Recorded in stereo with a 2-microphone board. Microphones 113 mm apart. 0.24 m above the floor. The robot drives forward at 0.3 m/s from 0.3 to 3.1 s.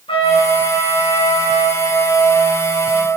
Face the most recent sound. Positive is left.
turn(degrees=30)  # may be behind; listen again after turning